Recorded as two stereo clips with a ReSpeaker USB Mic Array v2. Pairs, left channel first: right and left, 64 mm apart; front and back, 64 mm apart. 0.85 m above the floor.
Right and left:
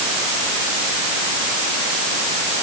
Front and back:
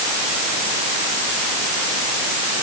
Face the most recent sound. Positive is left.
No sound to turn to.